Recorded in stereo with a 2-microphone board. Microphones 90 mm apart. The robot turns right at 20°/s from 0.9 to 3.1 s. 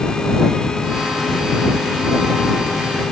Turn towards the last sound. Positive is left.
No sound to turn to.